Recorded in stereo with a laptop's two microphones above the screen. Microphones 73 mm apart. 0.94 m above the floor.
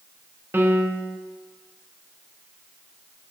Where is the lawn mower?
I don't hear a lawn mower.